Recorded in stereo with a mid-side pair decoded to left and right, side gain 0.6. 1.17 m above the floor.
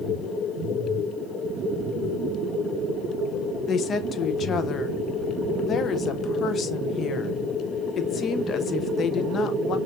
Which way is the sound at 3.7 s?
40° left.